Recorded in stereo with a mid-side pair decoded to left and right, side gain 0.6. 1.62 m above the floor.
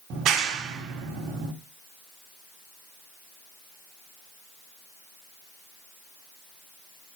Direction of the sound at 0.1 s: 55° right.